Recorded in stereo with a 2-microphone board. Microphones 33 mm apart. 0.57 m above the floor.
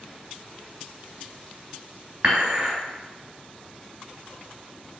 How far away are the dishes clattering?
About 1.9 m.